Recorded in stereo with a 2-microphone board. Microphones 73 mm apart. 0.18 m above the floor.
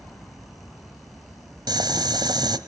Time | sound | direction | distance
1.7 | boiling | 75° right (ahead or behind) | 1.1 m